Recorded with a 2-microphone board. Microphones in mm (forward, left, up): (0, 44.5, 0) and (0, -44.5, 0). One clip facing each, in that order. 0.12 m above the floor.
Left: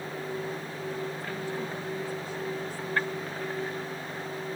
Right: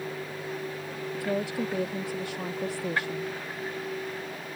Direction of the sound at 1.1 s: 70° right (ahead or behind).